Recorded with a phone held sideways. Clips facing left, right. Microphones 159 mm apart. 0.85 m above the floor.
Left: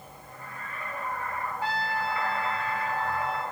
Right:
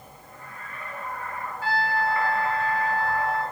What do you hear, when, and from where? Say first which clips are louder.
1.6 s a trumpet: right 6 dB; 20° left (ahead or behind), 4 m